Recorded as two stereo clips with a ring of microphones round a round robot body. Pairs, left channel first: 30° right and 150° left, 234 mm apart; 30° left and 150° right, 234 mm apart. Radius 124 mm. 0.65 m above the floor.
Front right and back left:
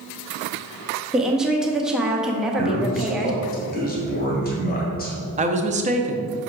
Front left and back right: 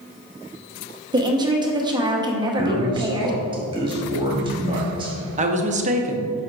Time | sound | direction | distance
1.1 | a woman speaking | 130° right | 0.9 m
2.6 | a man speaking | 80° right | 1.9 m
5.4 | a woman speaking | straight behind | 0.7 m